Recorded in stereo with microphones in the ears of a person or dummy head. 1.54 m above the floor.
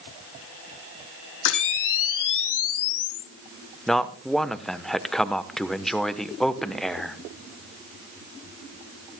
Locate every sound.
1.4 s a camera shutter: 75° left (ahead or behind), 1.8 m
3.9 s a man speaking: centre (ahead or behind), 1.0 m